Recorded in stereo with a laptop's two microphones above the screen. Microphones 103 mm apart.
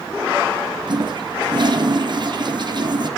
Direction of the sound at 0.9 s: 50° right (ahead or behind).